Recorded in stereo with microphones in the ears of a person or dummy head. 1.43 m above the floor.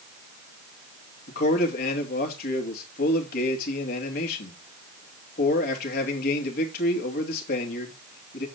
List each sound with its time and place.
1.3 s a man speaking: 50° left (ahead or behind), 2.5 m